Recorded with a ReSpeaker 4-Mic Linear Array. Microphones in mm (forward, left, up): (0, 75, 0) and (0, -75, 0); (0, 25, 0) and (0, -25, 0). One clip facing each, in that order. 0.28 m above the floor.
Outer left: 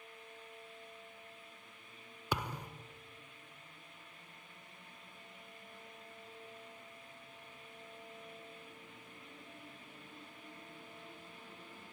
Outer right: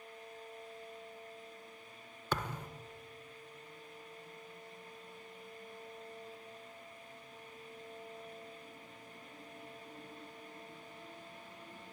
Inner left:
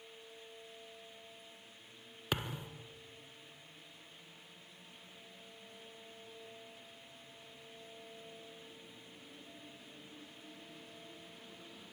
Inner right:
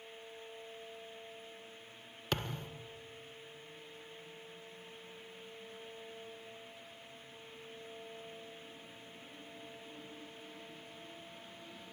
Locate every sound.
2.3 s a thud: 10° left (ahead or behind), 1.6 m